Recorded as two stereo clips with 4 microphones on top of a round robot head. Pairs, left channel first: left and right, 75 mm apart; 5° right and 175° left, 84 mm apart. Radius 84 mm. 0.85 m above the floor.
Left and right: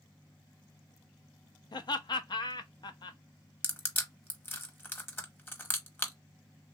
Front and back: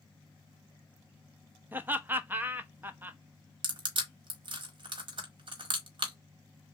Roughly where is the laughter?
Left.